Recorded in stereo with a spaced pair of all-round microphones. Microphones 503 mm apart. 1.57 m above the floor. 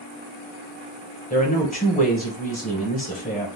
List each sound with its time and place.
1.3 s a woman speaking: 15° left (ahead or behind), 0.9 m